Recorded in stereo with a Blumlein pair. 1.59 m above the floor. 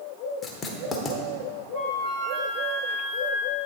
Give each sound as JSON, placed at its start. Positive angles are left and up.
{"t": 0.4, "sound": "writing", "azimuth_deg": 15, "distance_m": 0.9}
{"t": 1.7, "sound": "a flute", "azimuth_deg": -55, "distance_m": 2.0}